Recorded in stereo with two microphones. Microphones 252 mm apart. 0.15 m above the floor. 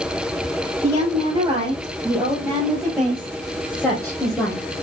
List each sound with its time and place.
0.8 s a woman speaking: 20° right (ahead or behind), 5.5 m; by 4.6 s 10° left (ahead or behind), 3.5 m